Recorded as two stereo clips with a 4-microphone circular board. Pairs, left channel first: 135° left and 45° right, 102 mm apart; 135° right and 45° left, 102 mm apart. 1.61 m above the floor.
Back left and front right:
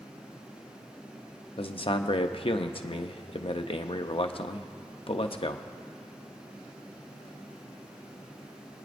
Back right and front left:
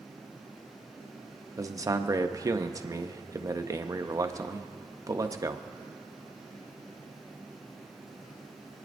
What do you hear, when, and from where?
1.6 s a man speaking: 105° left, 0.7 m